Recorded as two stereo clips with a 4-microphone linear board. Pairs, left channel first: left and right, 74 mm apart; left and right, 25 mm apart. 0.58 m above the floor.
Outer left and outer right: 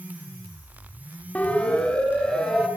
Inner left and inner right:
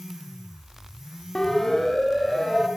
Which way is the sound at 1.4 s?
20° left (ahead or behind).